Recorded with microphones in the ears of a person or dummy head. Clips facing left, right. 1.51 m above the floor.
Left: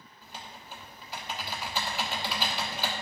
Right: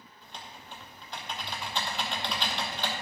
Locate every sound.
0.2 s typing on a keyboard: 10° left (ahead or behind), 1.1 m